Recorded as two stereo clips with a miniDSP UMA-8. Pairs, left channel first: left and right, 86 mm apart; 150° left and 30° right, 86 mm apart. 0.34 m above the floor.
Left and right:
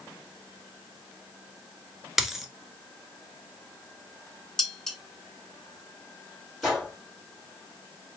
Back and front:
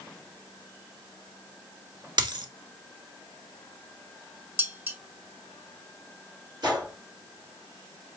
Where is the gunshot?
Straight ahead, 3.5 m.